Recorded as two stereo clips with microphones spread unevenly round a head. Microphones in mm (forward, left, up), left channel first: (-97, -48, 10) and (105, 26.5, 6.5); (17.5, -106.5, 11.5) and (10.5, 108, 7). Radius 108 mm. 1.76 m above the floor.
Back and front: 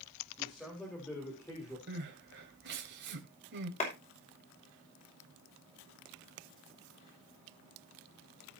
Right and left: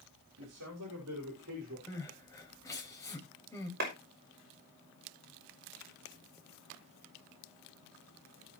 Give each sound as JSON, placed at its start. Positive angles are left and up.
{"t": 0.4, "sound": "a man speaking", "azimuth_deg": 110, "distance_m": 3.5}
{"t": 1.9, "sound": "crying", "azimuth_deg": -15, "distance_m": 3.0}
{"t": 3.8, "sound": "a clap", "azimuth_deg": 140, "distance_m": 6.0}